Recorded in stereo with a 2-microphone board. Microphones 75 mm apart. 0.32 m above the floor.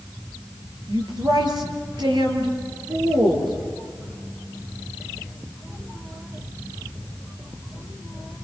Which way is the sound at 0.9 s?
65° right (ahead or behind).